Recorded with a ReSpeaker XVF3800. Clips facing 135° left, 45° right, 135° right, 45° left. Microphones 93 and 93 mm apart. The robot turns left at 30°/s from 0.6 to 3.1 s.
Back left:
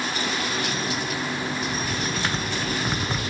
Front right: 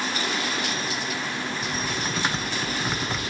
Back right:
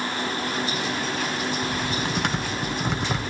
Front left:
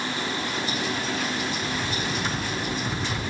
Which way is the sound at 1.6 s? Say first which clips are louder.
Back left 1 dB, back right 2 dB; 100° right.